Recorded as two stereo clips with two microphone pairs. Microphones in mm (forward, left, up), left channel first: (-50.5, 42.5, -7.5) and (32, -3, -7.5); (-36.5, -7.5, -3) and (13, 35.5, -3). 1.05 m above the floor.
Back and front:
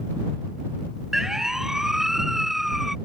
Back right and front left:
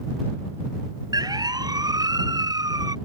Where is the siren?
55° left; by 3.0 s 60° left.